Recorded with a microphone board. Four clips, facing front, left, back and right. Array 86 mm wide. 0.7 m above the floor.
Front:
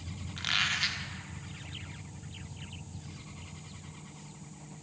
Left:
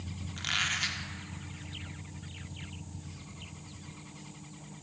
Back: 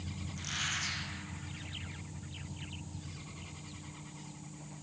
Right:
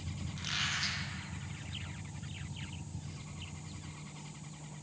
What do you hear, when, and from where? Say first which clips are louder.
0.4 s a squeak: left 5 dB, front 7 dB; 40° left, 0.7 m